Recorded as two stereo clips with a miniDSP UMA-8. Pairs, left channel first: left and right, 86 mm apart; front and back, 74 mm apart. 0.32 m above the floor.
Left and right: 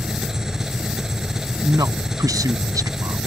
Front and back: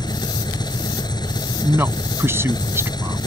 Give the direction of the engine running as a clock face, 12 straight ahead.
12 o'clock.